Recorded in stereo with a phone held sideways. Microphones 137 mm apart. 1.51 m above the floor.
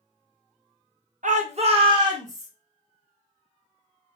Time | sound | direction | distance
1.2 | a shout | 65° right (ahead or behind) | 0.7 m